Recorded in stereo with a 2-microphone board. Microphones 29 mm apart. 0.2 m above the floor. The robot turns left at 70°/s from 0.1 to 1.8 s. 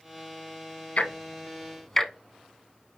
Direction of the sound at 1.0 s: 50° left (ahead or behind).